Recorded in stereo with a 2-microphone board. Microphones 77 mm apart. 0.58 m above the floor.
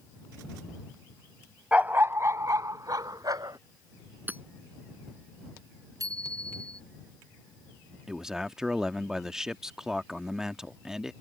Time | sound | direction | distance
1.7 | a dog barking | 15° right (ahead or behind) | ?
4.3 | hammering | 25° right (ahead or behind) | ?
6.0 | a bicycle bell | 50° right (ahead or behind) | ?
8.1 | a man speaking | 10° right (ahead or behind) | ?